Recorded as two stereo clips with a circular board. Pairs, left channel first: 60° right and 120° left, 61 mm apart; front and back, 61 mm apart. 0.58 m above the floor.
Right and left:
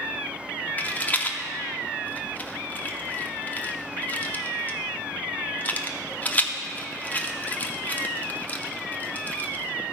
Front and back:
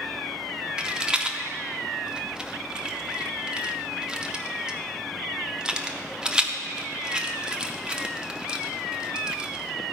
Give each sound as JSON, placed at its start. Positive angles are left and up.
{"t": 0.8, "sound": "a rattle", "azimuth_deg": -110, "distance_m": 0.6}